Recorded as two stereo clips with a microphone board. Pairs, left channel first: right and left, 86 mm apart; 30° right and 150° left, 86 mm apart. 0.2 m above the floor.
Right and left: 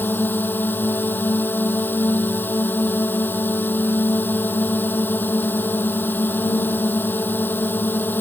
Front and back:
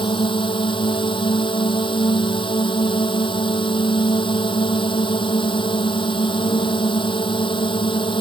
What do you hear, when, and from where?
0.0 s a drone: 25° right